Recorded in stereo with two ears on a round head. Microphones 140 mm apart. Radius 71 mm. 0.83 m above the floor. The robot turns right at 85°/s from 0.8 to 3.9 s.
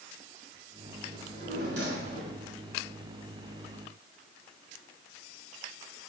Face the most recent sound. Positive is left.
turn(degrees=90)